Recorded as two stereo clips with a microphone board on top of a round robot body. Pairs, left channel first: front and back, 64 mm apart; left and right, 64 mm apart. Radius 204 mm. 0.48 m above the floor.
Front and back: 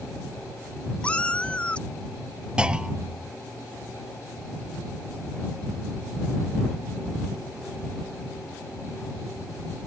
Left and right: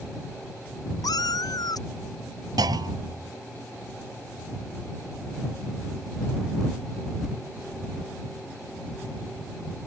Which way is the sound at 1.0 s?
75° left.